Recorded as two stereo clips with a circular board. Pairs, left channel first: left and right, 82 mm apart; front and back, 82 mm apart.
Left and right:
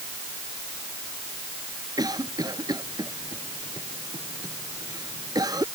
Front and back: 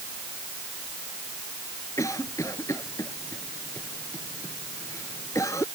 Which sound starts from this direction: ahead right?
A cough, at 2.0 s.